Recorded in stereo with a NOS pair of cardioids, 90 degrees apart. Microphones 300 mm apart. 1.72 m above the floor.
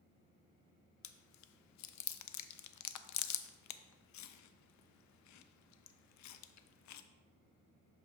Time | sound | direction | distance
1.0 | chewing | 65° left | 0.5 m